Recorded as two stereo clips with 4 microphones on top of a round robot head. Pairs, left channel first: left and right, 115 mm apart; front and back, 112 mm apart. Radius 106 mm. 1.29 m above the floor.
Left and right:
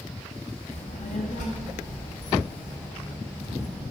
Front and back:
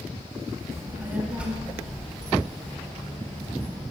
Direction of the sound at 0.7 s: 115° left.